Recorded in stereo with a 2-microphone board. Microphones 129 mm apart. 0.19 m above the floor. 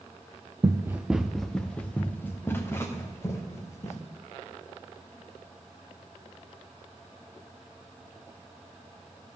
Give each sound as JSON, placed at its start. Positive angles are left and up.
{"t": 0.6, "sound": "running footsteps", "side_deg": -30, "distance_m": 0.6}